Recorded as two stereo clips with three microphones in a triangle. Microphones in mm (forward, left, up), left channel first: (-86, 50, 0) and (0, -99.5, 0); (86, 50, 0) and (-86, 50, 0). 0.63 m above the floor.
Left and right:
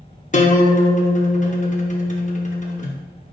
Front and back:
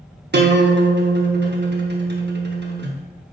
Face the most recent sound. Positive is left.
turn(degrees=165)